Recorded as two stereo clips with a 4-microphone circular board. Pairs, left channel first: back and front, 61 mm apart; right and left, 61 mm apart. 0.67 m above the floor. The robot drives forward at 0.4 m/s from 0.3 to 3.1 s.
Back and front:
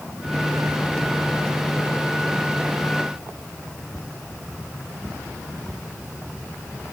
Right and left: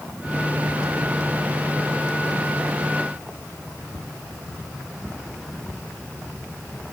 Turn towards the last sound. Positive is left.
No sound to turn to.